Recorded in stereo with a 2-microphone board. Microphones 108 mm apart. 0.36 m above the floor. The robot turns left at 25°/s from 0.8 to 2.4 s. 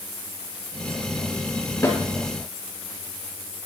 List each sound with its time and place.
1.8 s a snare drum: 25° left (ahead or behind), 3 m; by 2.0 s 20° left (ahead or behind), 3 m